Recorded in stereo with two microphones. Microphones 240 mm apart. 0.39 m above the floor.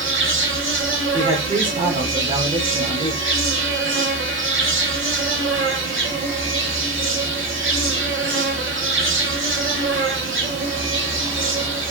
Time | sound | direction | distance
0.0 | an insect | 55° right (ahead or behind) | 0.8 m
1.1 | a man speaking | 20° right (ahead or behind) | 1.1 m